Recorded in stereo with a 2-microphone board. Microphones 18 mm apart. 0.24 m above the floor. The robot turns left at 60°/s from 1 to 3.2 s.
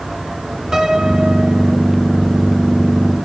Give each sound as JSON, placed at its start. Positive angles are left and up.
{"t": 0.7, "sound": "a piano", "azimuth_deg": -45, "distance_m": 2.0}